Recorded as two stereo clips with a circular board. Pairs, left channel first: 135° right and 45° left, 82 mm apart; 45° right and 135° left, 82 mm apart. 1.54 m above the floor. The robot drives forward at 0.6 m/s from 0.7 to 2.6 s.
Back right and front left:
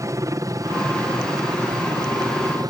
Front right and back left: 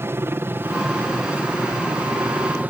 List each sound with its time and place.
0.0 s a helicopter: 80° left; by 2.7 s 70° left